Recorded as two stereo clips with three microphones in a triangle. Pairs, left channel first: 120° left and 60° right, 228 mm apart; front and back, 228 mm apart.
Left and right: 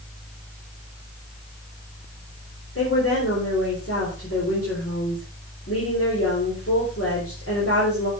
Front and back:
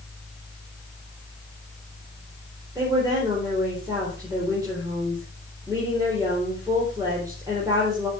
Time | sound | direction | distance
2.8 | a woman speaking | 105° left | 3.5 m